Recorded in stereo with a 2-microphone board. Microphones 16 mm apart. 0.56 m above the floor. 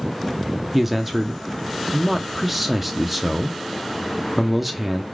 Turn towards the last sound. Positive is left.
turn(degrees=-10)  # may be behind; listen again after turning